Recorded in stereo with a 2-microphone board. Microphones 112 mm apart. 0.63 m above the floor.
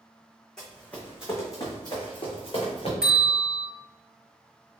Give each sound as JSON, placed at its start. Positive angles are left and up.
{"t": 0.6, "sound": "running footsteps", "side_deg": 5, "distance_m": 1.4}
{"t": 3.0, "sound": "a bell", "side_deg": -5, "distance_m": 1.9}